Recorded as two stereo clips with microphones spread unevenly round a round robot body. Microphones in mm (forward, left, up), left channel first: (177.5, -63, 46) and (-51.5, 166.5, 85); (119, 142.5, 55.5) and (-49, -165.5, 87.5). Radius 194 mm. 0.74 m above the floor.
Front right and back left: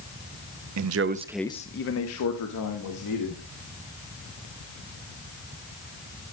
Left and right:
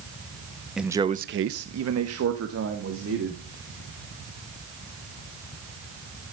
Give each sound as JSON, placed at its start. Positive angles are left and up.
{"t": 0.8, "sound": "a man speaking", "azimuth_deg": 150, "distance_m": 0.9}